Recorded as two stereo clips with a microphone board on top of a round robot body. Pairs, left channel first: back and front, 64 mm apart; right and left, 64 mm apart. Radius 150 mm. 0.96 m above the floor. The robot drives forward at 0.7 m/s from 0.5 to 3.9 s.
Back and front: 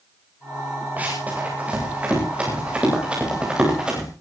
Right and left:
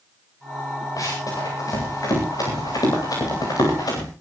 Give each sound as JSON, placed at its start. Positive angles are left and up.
{"t": 1.0, "sound": "running footsteps", "azimuth_deg": -65, "distance_m": 9.0}